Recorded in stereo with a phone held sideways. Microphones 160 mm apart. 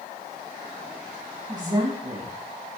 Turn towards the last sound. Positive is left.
turn(degrees=-25)  # may be behind; listen again after turning